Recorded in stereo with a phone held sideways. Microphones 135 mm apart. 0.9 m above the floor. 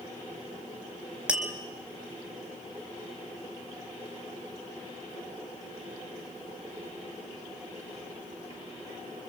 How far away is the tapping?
About 3.5 m.